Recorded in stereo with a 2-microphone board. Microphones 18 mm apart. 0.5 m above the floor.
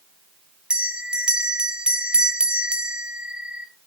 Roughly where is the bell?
Right.